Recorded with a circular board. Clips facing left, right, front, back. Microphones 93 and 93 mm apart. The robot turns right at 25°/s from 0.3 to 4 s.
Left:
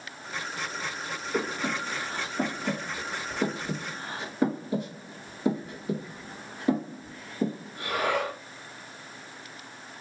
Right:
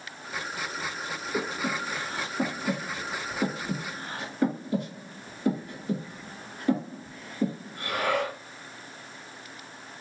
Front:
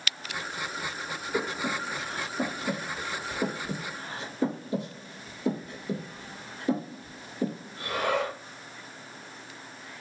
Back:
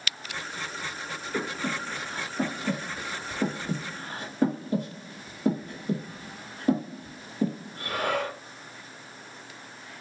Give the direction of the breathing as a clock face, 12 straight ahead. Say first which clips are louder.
Left 1 dB, front 1 dB; 9 o'clock.